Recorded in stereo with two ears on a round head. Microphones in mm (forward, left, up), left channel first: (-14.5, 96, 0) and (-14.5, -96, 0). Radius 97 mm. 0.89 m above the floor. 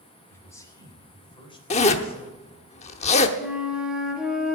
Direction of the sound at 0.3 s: 10° left (ahead or behind).